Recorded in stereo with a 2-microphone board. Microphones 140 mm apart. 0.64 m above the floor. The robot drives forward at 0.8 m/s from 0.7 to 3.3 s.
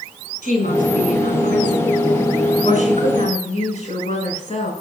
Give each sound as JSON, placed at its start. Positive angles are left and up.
{"t": 0.4, "sound": "a woman speaking", "side_deg": 70, "distance_m": 6.0}